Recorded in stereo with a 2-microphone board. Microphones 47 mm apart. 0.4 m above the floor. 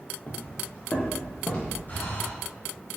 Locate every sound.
0.3 s footsteps: 35° left (ahead or behind), 2 m; by 1.8 s 25° left (ahead or behind), 4.5 m
1.9 s breathing: 40° left (ahead or behind), 2 m